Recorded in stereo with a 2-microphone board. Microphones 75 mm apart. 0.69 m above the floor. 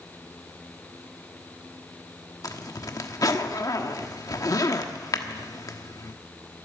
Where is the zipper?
50° left (ahead or behind), 1.1 m.